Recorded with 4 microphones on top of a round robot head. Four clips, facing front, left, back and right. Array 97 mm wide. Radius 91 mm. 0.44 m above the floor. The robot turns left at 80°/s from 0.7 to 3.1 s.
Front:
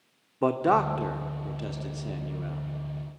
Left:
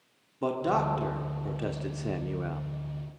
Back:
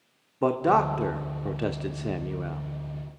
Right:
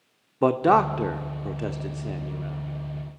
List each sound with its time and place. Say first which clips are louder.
0.4 s a man speaking: right 8 dB, back 1 dB; 90° right, 1.0 m; by 2.6 s 115° left, 1.0 m